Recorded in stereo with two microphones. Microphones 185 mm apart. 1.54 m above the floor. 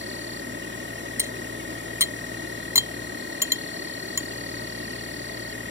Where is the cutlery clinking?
15° right (ahead or behind).